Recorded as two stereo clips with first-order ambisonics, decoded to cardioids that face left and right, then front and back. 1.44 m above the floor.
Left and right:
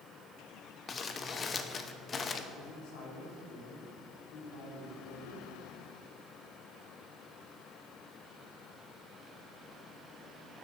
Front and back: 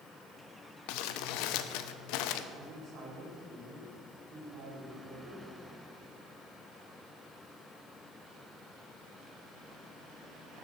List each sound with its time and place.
0.9 s crumpling: 20° left, 0.8 m
2.5 s a man speaking: 110° left, 4 m